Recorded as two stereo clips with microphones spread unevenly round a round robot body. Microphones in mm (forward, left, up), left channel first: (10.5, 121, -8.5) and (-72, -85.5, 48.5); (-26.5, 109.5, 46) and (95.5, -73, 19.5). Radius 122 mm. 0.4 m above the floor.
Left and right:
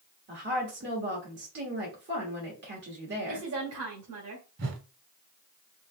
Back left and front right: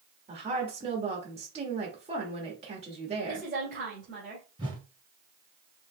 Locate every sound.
0.3 s a woman speaking: 80° right, 1.3 m
3.3 s a woman speaking: 105° right, 1.9 m
4.6 s a whoosh: 130° right, 1.1 m